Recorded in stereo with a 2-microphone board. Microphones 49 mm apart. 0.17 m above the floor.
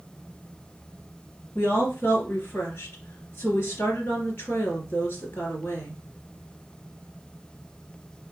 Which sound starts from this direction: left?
A woman speaking, at 1.6 s.